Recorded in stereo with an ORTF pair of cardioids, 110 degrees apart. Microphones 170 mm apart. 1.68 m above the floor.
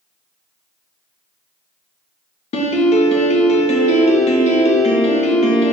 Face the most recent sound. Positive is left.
turn(degrees=40)